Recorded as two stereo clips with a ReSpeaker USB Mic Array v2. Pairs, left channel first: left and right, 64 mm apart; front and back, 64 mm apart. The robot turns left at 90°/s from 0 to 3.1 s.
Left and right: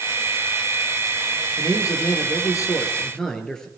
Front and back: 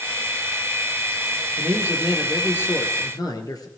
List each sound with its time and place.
1.6 s a man speaking: 145° left, 4 m; by 3.7 s 10° left, 4 m